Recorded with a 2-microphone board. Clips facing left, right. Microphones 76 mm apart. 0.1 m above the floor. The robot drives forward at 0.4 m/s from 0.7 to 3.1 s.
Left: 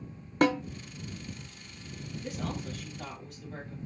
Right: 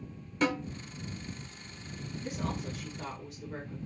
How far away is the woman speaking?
About 1.5 m.